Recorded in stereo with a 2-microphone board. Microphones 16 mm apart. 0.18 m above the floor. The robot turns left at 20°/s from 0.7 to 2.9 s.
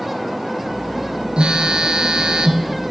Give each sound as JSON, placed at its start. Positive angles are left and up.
{"t": 1.4, "sound": "a phone buzzing", "azimuth_deg": -90, "distance_m": 0.8}